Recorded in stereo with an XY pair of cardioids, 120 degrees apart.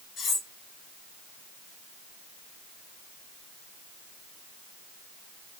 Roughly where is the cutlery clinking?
Ahead left.